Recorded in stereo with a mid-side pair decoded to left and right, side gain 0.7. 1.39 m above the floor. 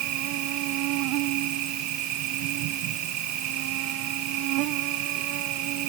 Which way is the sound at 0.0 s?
65° right.